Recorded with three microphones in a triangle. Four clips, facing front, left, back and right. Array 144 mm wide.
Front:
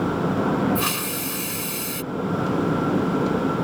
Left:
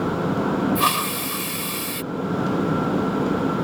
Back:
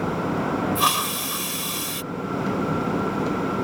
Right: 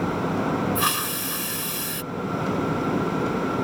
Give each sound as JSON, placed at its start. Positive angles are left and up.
{"t": 0.8, "sound": "a hiss", "azimuth_deg": 130}